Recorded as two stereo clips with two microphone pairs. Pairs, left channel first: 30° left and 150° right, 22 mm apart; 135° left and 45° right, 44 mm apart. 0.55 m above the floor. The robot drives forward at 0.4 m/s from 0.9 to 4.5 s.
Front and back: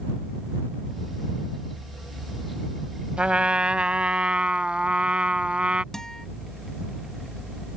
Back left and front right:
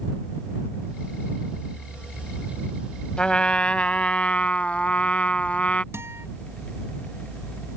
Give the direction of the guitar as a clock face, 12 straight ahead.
1 o'clock.